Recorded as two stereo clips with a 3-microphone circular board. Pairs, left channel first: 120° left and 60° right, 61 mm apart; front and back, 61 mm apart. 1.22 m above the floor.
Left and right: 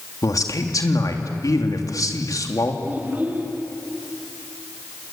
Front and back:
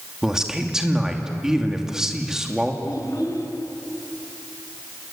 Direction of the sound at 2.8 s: Straight ahead.